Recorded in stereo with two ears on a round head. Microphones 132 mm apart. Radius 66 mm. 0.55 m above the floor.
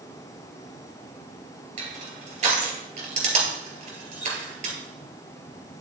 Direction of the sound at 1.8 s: 55° right (ahead or behind).